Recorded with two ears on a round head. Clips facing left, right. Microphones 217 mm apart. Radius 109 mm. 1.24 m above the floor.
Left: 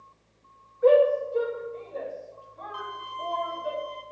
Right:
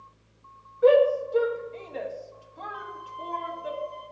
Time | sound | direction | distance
0.8 | a shout | 50° right (ahead or behind) | 2 m
2.7 | a violin | 50° left (ahead or behind) | 2.5 m